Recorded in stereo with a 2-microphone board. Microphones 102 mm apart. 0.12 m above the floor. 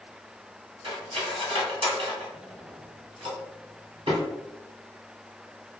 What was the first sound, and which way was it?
Cutlery clinking, 60° right (ahead or behind).